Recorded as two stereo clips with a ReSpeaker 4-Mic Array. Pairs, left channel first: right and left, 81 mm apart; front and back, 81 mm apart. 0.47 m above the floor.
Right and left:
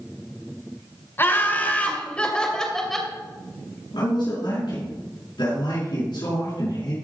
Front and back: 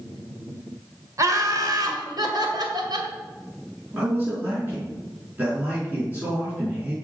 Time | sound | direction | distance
1.2 | laughter | 145° right | 2 m
3.9 | a man speaking | 115° right | 5.5 m